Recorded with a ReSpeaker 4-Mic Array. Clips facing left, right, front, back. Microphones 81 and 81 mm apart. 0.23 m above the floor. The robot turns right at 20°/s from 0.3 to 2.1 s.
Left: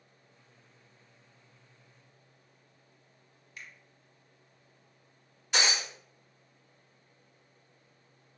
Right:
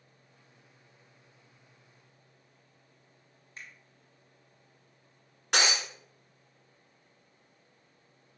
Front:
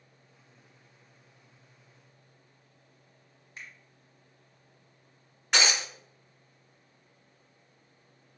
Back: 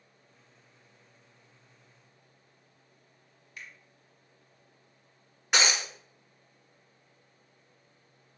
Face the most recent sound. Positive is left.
turn(degrees=-95)